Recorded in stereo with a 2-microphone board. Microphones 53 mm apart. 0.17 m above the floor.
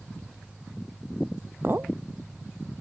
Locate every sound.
1.6 s a clink: 45° right (ahead or behind)